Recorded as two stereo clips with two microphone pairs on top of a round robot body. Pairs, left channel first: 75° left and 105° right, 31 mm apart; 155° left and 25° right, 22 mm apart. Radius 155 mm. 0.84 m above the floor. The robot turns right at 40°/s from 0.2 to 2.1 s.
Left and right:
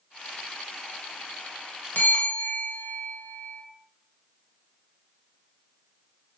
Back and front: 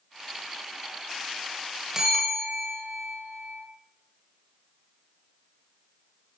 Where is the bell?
40° left, 2 m; by 3.6 s 50° left, 2 m.